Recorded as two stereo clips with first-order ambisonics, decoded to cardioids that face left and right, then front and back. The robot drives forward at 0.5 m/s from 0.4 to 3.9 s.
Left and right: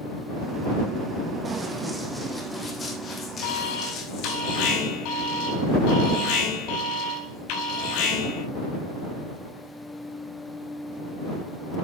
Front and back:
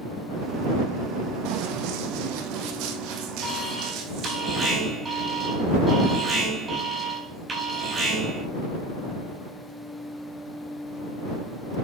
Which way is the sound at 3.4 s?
100° left.